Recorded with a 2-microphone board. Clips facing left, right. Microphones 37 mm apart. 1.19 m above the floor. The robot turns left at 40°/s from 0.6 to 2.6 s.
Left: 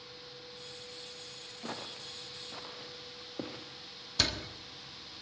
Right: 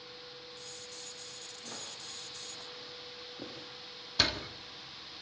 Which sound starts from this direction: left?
Footsteps, at 1.6 s.